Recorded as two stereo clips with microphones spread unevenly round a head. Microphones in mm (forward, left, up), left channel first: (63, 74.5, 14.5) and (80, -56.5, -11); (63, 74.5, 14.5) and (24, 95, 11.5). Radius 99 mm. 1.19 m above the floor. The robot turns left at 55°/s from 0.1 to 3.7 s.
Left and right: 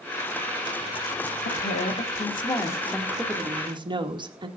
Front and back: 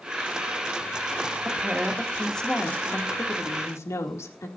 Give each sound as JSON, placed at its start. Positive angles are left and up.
{"t": 1.4, "sound": "a woman speaking", "azimuth_deg": 95, "distance_m": 2.5}